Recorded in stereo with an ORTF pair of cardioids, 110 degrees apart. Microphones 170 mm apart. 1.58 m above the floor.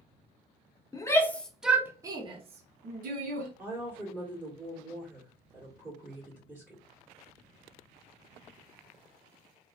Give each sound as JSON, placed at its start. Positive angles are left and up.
{"t": 0.9, "sound": "a shout", "azimuth_deg": 20, "distance_m": 0.8}
{"t": 3.6, "sound": "a woman speaking", "azimuth_deg": -5, "distance_m": 1.4}